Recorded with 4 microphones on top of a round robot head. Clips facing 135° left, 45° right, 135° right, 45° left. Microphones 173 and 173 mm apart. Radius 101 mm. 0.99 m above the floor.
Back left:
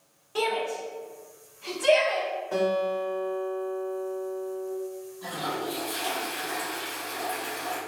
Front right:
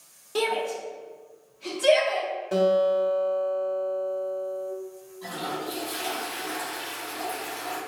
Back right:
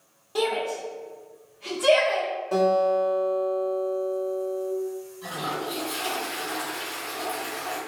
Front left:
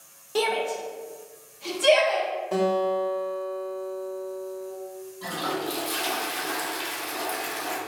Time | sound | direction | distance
0.3 | a shout | 15° right | 0.8 m
2.5 | a guitar | 45° right | 0.9 m
5.2 | a toilet flushing | 40° left | 0.9 m